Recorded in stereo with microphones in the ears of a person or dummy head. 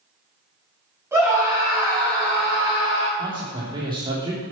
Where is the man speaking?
25° right (ahead or behind), 3 m.